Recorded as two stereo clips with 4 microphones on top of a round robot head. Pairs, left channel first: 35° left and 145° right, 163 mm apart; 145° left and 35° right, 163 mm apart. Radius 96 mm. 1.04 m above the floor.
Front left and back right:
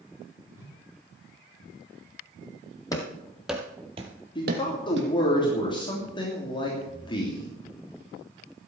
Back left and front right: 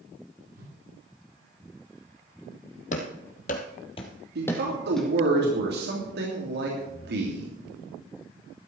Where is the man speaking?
25° right, 3 m.